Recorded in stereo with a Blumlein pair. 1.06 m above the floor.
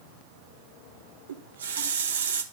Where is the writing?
No writing in this recording.